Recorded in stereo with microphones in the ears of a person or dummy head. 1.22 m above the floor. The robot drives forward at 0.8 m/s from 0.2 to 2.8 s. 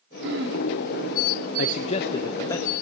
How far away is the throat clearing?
About 3 m.